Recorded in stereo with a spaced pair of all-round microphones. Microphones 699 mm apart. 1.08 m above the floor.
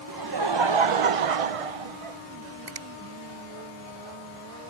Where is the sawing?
I don't hear sawing.